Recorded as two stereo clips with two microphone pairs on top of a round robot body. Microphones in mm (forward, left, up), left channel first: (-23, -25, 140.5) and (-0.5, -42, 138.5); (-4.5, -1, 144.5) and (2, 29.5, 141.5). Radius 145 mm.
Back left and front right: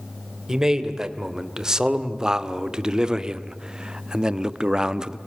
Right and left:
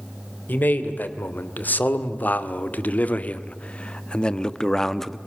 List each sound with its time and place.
0.5 s a man speaking: 105° right, 3 m; by 5.2 s 15° right, 1.4 m